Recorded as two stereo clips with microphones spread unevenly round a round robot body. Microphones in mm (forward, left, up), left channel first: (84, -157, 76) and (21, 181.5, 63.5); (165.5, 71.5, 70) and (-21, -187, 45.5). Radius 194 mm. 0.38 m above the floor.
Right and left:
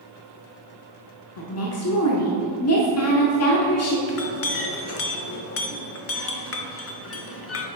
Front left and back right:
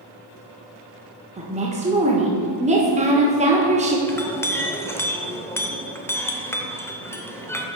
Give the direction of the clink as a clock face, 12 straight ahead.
1 o'clock.